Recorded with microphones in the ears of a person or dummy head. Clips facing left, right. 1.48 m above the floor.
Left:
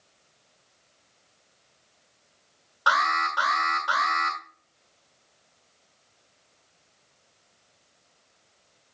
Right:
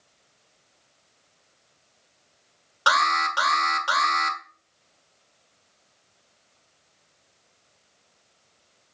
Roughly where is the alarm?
Right.